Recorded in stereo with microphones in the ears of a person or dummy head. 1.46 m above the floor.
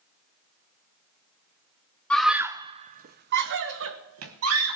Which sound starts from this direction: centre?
A scream, at 2.1 s.